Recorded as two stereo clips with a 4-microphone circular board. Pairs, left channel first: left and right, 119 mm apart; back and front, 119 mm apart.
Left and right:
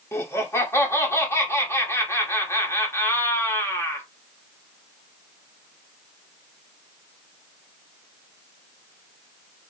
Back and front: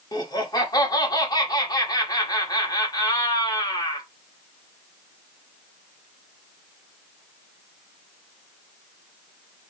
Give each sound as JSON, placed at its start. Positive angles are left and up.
{"t": 0.1, "sound": "laughter", "azimuth_deg": 145, "distance_m": 1.6}